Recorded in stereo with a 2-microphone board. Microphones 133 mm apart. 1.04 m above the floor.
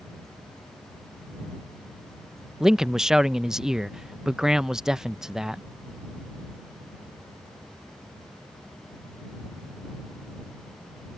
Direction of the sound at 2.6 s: 5° right (ahead or behind).